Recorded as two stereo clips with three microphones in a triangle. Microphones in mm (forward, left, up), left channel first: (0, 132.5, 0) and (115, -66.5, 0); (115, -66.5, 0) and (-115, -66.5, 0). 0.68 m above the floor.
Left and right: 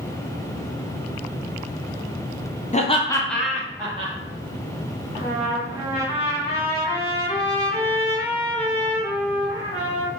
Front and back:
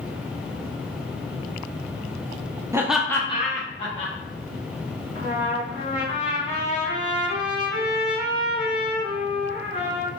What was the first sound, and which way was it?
Laughter, 115° left.